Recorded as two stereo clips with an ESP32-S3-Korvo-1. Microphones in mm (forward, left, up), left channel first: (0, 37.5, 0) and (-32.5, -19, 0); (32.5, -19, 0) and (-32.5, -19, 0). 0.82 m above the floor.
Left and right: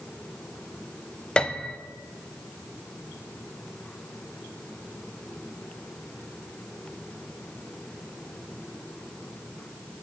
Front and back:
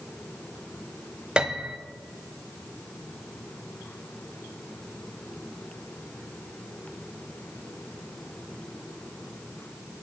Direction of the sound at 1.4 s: 120° left.